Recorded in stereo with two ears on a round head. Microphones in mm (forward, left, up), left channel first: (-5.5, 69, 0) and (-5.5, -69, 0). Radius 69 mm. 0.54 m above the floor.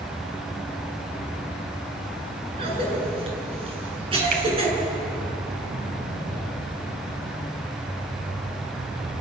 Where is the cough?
35° right (ahead or behind), 7.5 m.